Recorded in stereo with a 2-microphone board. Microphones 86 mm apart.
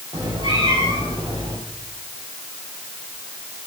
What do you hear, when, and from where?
0.1 s a cat meowing: 60° right (ahead or behind), 7 m; by 1.6 s 65° right (ahead or behind), 8 m